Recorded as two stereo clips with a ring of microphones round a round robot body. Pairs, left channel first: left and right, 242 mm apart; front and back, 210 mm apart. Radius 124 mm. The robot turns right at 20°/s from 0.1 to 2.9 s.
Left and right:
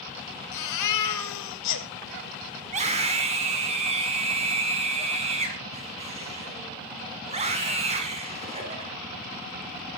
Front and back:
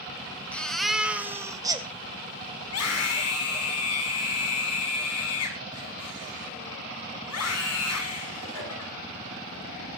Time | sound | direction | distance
0.5 | a baby crying | 85° left | 2 m
2.6 | a scream | 30° right | 6.5 m